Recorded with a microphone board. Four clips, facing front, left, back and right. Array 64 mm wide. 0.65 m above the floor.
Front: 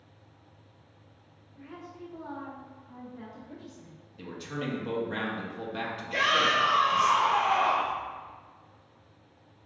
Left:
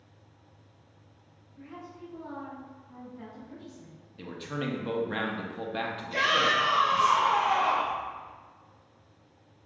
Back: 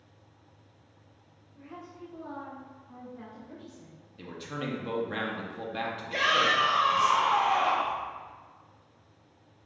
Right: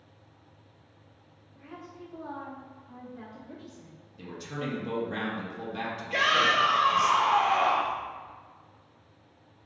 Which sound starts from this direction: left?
A man speaking, at 4.2 s.